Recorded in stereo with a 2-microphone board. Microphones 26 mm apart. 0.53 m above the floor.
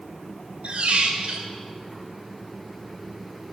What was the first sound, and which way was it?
A squeak, 60° right (ahead or behind).